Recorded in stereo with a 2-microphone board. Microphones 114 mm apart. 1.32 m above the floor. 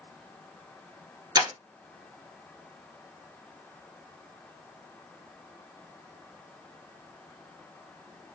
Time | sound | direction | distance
1.4 | breaking glass | 40° right (ahead or behind) | 1.6 m